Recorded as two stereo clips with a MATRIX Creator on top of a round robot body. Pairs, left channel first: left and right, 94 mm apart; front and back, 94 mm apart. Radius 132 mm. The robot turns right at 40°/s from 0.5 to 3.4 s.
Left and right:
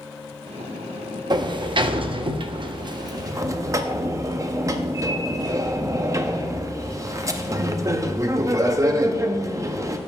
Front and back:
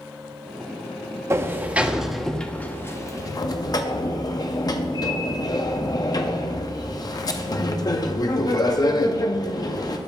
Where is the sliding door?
120° right, 0.6 m; by 10.0 s 40° right, 0.6 m.